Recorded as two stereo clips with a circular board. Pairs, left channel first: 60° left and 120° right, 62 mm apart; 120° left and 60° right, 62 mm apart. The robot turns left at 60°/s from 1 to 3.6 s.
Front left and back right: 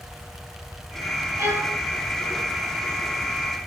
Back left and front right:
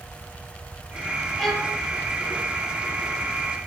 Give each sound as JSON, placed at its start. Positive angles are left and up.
{"t": 1.4, "sound": "a violin", "azimuth_deg": -150, "distance_m": 0.8}